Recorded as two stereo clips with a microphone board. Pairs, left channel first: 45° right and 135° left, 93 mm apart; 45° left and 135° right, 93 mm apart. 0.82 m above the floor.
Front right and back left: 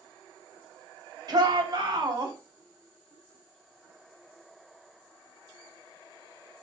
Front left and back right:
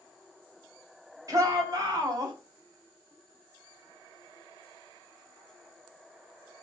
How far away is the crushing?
No crushing in this recording.